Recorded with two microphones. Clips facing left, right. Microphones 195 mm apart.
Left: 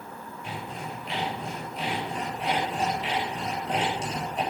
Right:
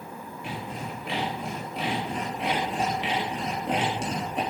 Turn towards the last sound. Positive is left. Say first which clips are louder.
# right 2 dB
turn(degrees=-75)  # may be behind; listen again after turning